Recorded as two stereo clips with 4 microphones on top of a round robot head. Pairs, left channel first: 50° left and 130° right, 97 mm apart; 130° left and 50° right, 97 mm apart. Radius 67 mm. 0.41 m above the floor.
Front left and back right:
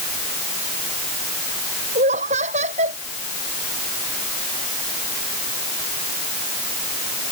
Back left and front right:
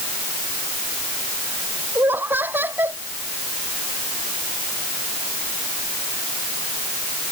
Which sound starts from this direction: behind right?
Laughter, at 1.9 s.